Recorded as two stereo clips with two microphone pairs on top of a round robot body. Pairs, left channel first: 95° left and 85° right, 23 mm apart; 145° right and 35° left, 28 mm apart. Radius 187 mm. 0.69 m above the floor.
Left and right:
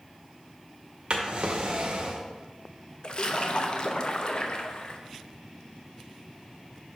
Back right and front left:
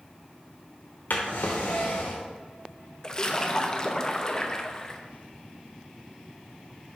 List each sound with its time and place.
1.1 s a drawer: 135° right, 0.7 m
3.0 s a splash: 150° left, 1.0 m